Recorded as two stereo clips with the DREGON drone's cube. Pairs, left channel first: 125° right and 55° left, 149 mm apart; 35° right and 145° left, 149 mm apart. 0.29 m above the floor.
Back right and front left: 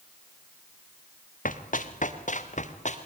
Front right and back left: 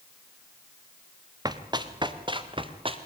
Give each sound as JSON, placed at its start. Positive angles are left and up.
{"t": 1.4, "sound": "running footsteps", "azimuth_deg": -150, "distance_m": 2.0}